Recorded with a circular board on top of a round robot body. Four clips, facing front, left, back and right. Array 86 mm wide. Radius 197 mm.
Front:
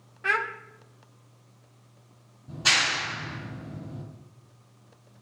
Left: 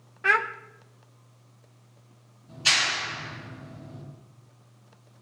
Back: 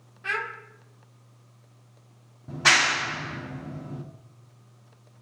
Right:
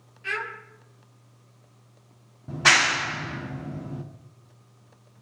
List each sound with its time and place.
0.2 s a child speaking: 75° left, 0.9 m
2.5 s a clap: 120° right, 1.9 m